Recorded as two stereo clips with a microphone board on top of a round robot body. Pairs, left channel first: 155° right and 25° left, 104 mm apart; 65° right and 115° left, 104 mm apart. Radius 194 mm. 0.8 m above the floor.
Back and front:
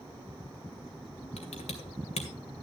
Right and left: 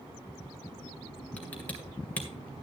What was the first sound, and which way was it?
Typing on a keyboard, 145° right.